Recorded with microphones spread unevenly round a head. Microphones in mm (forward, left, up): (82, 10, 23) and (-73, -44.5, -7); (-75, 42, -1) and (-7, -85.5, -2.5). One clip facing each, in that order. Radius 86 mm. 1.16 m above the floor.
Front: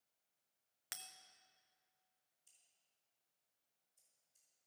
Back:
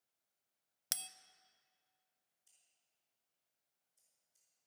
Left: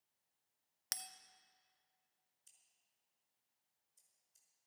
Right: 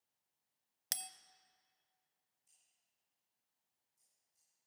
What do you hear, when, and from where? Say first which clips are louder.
0.9 s a bell: back 4 dB, right 2 dB; 125° right, 0.5 m
2.5 s scissors: front 1 dB, left 1 dB; 115° left, 5 m